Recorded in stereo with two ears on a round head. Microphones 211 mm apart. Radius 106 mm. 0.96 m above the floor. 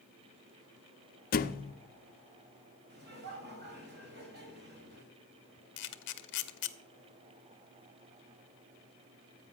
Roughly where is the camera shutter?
Left.